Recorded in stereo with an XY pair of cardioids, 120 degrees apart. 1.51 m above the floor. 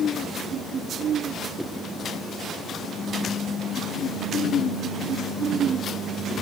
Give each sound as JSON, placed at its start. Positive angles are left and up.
{"t": 1.6, "sound": "a whoosh", "azimuth_deg": 0, "distance_m": 1.3}